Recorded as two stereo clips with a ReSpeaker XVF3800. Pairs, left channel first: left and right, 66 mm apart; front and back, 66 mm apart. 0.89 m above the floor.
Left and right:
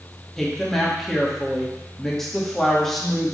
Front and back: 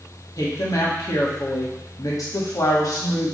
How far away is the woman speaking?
About 1.9 m.